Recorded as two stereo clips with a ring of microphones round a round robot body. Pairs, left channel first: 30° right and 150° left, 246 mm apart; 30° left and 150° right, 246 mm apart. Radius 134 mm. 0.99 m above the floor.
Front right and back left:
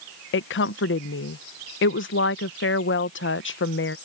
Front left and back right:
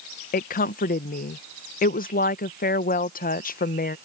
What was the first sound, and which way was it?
A woman speaking, 15° right.